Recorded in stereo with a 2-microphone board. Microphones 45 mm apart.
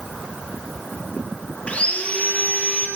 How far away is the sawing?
About 2.5 m.